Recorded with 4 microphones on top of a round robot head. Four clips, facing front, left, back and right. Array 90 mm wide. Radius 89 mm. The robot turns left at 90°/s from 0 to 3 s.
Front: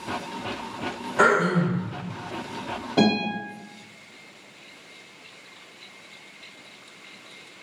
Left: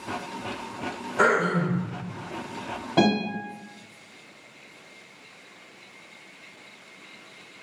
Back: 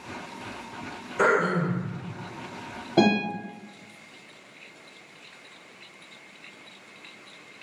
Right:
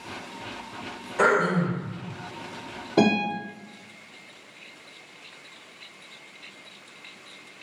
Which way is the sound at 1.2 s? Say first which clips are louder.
Even, front 3 dB; 5° right.